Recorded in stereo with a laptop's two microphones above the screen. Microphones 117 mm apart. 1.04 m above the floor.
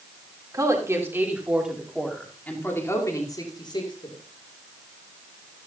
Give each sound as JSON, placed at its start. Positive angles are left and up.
{"t": 0.5, "sound": "a woman speaking", "side_deg": -30, "distance_m": 3.0}